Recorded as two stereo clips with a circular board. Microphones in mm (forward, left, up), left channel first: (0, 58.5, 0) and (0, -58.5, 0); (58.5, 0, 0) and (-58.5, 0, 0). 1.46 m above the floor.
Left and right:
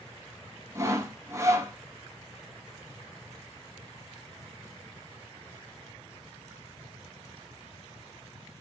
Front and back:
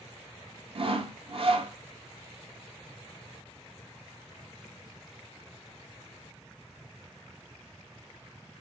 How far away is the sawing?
About 0.7 m.